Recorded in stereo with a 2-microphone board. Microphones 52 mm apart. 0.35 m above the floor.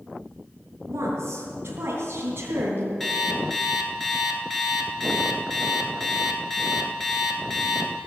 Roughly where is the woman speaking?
Right.